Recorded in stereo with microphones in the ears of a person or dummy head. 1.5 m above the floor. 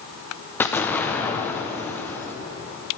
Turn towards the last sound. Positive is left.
turn(degrees=15)  # may be behind; listen again after turning